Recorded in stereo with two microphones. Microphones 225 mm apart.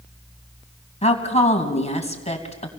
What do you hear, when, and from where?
1.0 s a woman speaking: 30° left (ahead or behind), 3 m